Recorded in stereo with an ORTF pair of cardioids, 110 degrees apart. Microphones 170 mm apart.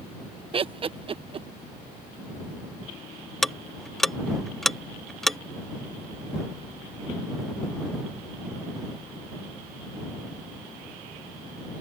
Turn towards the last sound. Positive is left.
turn(degrees=0)